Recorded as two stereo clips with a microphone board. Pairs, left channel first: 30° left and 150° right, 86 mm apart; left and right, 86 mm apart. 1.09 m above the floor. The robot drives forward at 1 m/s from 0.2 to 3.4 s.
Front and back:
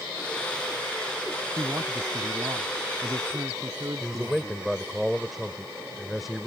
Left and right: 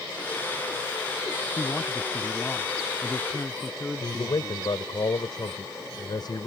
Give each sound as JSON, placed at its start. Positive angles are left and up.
{"t": 1.6, "sound": "a man speaking", "azimuth_deg": 155}
{"t": 4.0, "sound": "a man speaking", "azimuth_deg": 120}